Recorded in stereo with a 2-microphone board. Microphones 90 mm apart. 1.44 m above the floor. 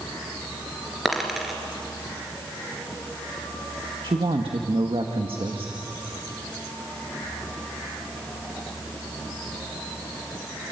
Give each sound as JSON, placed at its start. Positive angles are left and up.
{"t": 1.1, "sound": "a dropped coin", "side_deg": -5, "distance_m": 3.0}
{"t": 4.0, "sound": "a woman speaking", "side_deg": -85, "distance_m": 1.8}